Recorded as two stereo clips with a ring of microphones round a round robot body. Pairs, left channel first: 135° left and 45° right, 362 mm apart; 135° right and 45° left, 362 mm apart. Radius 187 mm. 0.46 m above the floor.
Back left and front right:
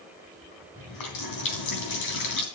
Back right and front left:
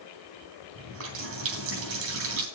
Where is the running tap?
100° left, 3 m.